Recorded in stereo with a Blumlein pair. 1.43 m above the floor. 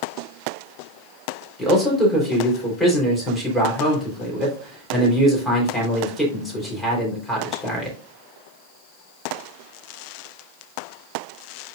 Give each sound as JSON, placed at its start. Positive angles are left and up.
{"t": 1.6, "sound": "a man speaking", "azimuth_deg": 5, "distance_m": 4.0}